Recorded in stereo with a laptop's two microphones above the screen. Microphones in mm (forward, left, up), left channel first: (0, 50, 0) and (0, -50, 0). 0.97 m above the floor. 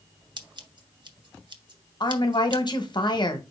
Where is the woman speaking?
50° left (ahead or behind), 0.8 m.